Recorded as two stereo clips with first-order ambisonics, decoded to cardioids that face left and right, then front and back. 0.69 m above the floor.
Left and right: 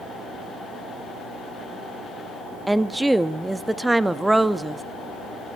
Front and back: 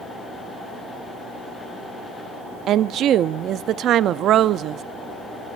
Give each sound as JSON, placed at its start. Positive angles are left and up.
{"t": 2.7, "sound": "a woman speaking", "azimuth_deg": -175, "distance_m": 0.5}